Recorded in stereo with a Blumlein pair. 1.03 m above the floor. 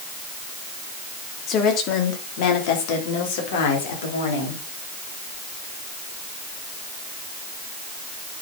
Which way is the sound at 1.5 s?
30° left.